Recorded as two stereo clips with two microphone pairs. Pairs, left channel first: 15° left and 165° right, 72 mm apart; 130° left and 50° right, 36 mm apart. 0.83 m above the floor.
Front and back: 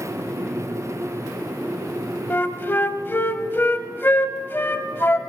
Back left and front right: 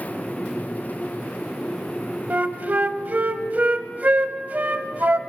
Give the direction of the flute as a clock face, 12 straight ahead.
1 o'clock.